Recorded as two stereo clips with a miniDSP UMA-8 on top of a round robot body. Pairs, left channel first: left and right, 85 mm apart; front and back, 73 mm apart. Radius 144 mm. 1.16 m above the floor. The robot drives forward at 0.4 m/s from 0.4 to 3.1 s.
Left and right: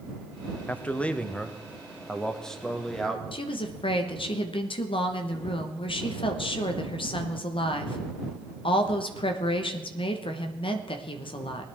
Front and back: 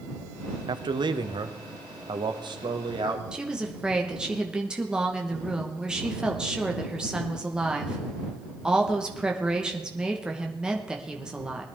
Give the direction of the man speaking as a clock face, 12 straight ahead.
7 o'clock.